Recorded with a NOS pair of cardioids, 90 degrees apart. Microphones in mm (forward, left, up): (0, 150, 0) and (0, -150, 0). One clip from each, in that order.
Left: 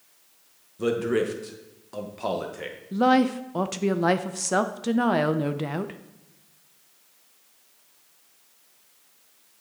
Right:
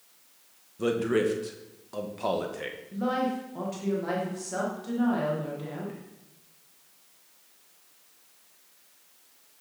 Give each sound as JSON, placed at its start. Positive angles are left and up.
{"t": 0.8, "sound": "a man speaking", "azimuth_deg": 5, "distance_m": 1.3}
{"t": 2.9, "sound": "a woman speaking", "azimuth_deg": 70, "distance_m": 0.7}